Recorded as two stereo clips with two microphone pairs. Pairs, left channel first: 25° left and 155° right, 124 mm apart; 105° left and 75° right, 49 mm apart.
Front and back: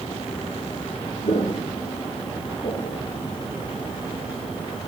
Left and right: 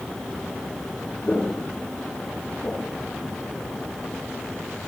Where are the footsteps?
40° left, 4 m; by 3.0 s 55° left, 5 m.